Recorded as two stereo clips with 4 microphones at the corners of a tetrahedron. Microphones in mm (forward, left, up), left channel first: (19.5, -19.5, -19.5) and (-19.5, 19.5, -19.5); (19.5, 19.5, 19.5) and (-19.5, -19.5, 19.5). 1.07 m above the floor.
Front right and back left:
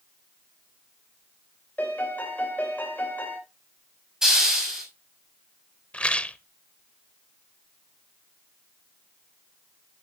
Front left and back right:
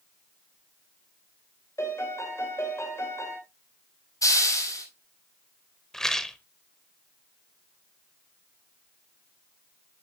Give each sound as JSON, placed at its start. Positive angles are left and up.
{"t": 1.8, "sound": "a piano", "azimuth_deg": 15, "distance_m": 3.5}
{"t": 4.2, "sound": "a hiss", "azimuth_deg": 55, "distance_m": 5.5}
{"t": 5.9, "sound": "a rattle", "azimuth_deg": -25, "distance_m": 0.8}